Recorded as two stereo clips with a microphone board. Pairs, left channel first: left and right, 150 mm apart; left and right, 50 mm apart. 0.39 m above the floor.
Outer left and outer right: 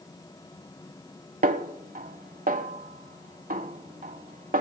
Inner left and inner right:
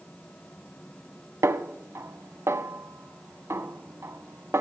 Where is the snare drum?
65° right (ahead or behind), 0.7 m.